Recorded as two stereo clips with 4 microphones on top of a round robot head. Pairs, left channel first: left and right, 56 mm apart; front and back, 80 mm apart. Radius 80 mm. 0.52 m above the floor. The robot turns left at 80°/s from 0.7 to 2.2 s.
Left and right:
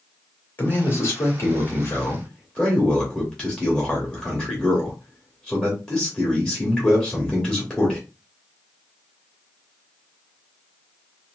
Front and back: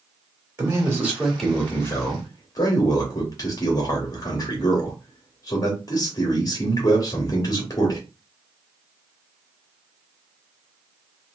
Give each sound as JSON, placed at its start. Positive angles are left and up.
{"t": 0.6, "sound": "a man speaking", "azimuth_deg": 135, "distance_m": 1.4}